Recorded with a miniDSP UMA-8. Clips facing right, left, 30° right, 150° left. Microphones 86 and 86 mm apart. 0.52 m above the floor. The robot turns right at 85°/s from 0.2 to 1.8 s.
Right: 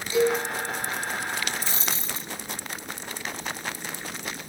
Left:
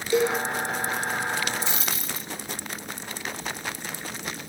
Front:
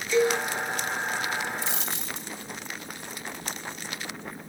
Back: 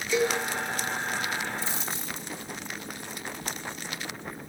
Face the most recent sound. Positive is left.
turn(degrees=-30)